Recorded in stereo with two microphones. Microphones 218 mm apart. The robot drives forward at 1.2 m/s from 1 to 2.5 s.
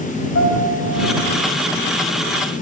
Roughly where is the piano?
Left.